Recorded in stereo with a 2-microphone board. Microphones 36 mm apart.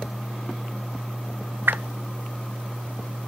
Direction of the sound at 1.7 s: 80° right.